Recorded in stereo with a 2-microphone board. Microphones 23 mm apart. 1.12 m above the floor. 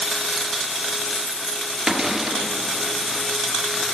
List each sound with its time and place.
0.4 s keys jangling: 70° right (ahead or behind), 1.2 m; by 1.8 s 30° right (ahead or behind), 1.3 m
1.9 s a cupboard door: 20° right (ahead or behind), 1.2 m